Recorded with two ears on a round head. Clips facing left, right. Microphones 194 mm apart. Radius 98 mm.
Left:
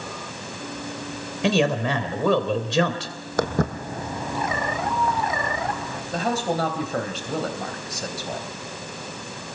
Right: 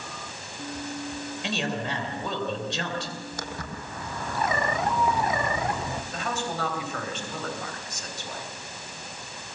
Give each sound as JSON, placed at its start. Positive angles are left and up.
{"t": 1.4, "sound": "a man speaking", "side_deg": 65, "distance_m": 3.0}
{"t": 3.4, "sound": "footsteps", "side_deg": 55, "distance_m": 1.4}
{"t": 6.1, "sound": "a man speaking", "side_deg": 40, "distance_m": 3.0}